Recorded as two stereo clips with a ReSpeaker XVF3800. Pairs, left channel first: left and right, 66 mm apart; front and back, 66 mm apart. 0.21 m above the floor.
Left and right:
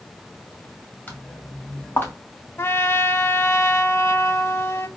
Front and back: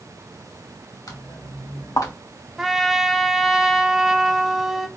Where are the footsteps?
25° left, 3 m; by 2.1 s 30° left, 1.9 m.